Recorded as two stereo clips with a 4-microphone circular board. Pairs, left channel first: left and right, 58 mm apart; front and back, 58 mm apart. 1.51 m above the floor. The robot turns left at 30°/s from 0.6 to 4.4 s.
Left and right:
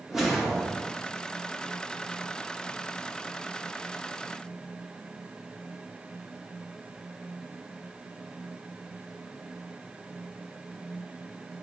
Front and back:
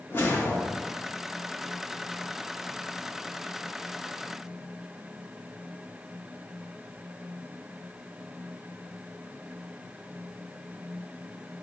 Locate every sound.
0.1 s a whoosh: 5° right, 0.9 m; by 1.0 s 20° right, 0.9 m